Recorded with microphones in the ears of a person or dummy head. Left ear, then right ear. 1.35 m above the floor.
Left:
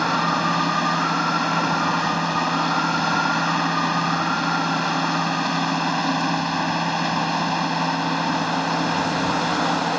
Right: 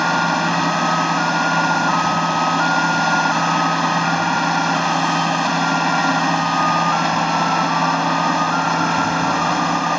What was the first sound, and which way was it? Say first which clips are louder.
A machine running: right 3 dB; 20° right (ahead or behind).